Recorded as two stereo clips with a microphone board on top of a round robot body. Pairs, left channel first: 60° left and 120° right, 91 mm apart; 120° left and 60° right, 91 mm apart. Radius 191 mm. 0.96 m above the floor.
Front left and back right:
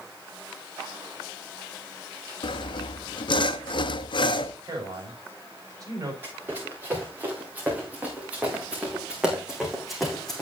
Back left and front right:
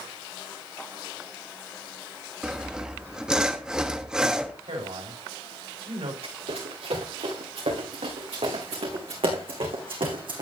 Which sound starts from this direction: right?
A man speaking, at 4.6 s.